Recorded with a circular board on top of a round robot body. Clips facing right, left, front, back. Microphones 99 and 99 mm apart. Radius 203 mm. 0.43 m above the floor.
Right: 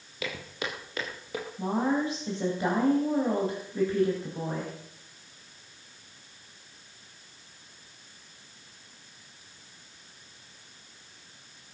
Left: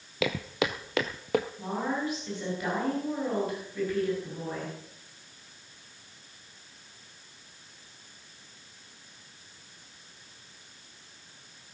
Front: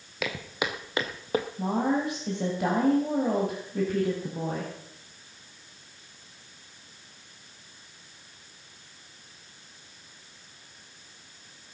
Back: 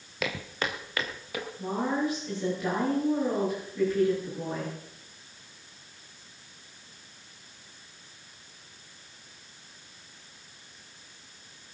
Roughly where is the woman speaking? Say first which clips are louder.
Right 4 dB, even; ahead right.